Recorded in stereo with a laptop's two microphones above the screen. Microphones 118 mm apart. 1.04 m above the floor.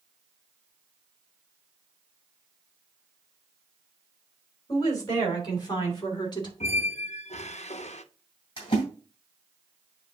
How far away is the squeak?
About 0.6 m.